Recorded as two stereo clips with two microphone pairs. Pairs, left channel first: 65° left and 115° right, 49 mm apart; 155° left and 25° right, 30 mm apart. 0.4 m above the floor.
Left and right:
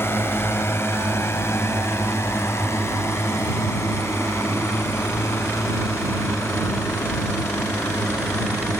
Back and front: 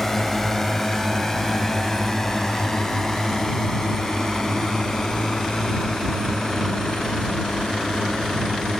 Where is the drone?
75° left; by 8.8 s 85° left.